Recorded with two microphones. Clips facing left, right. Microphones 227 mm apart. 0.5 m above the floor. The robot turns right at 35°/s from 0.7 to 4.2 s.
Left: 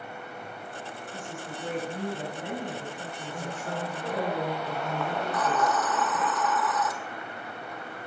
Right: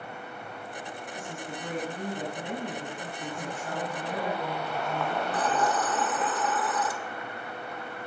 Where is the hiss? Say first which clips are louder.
Left 1 dB; 30° right (ahead or behind), 0.8 m.